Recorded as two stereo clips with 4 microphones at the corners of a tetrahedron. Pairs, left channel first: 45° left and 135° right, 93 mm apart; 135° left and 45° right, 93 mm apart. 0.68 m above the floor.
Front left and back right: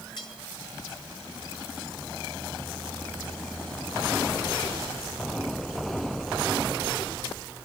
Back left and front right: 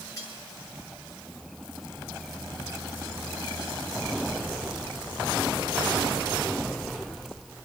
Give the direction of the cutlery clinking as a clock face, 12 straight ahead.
9 o'clock.